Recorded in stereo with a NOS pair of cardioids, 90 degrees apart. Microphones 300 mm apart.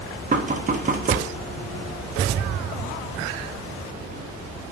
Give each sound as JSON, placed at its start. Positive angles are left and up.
{"t": 0.3, "sound": "knocking", "azimuth_deg": -30, "distance_m": 0.8}